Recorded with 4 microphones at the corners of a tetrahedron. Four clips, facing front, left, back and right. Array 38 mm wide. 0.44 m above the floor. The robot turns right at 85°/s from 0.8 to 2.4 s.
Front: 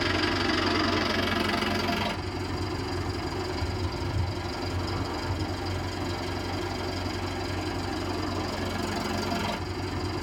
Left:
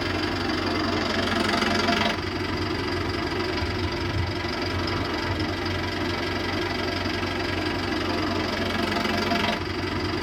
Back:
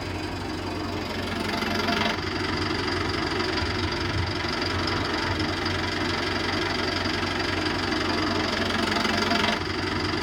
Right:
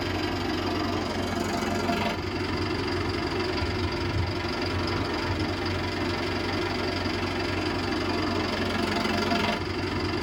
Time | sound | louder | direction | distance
0.0 | an engine running | left 2 dB, front 6 dB | 30° left | 1.7 m